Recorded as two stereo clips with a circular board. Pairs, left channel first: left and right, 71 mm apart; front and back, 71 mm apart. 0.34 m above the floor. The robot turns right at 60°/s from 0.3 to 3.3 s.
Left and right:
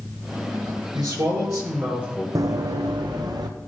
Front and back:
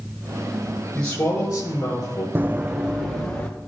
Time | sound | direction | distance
0.9 | a man speaking | 80° right | 5.5 m
2.4 | running footsteps | 125° right | 0.7 m